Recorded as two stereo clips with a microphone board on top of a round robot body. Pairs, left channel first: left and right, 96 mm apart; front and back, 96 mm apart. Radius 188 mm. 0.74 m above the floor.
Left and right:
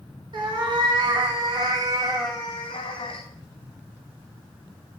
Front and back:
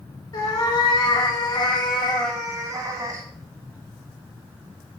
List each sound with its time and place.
0.3 s a cat meowing: 50° right, 1.9 m; by 3.2 s 125° left, 1.0 m